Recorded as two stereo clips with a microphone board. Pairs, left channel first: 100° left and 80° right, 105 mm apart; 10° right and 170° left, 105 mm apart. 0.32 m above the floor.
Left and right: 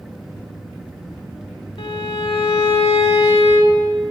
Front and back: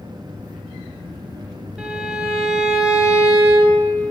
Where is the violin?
90° left, 0.8 m.